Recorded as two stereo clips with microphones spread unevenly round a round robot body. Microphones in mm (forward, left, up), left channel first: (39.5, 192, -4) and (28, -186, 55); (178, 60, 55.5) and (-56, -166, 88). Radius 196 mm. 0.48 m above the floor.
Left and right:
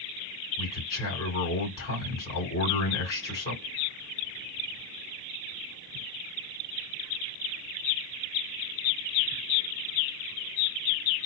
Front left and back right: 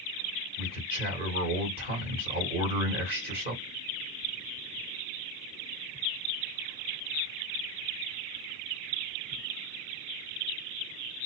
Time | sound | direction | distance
0.6 | a man speaking | 150° left | 2 m